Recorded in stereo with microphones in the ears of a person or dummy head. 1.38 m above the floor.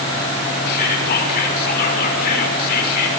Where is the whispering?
55° left (ahead or behind), 5.5 m.